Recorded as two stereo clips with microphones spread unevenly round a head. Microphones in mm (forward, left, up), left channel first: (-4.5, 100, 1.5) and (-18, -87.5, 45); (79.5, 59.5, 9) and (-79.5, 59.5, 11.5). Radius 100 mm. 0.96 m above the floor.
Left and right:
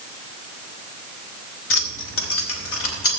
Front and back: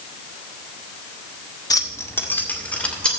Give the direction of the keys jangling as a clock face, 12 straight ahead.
10 o'clock.